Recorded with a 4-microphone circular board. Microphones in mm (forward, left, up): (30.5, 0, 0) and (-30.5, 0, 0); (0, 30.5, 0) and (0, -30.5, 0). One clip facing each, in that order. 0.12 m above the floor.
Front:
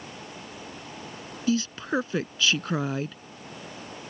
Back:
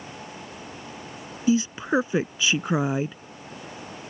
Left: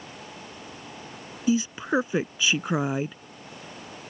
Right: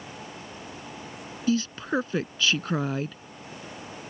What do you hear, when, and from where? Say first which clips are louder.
1.5 s a woman speaking: back 4 dB, left 2 dB; 140° left